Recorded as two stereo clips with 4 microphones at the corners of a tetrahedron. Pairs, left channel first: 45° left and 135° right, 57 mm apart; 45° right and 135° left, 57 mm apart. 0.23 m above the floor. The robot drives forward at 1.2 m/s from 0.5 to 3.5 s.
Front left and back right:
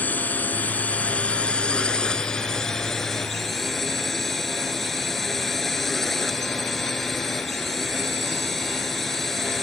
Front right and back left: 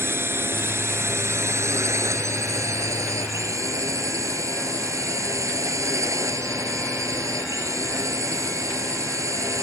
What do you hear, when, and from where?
0.0 s a drone: 100° left; by 9.6 s 130° left